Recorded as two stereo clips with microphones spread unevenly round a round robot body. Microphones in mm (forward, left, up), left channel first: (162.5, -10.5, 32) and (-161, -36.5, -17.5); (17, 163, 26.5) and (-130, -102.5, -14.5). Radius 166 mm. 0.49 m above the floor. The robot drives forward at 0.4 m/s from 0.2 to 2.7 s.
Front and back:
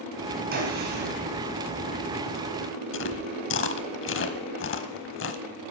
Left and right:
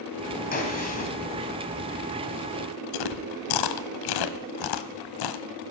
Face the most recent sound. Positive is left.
turn(degrees=60)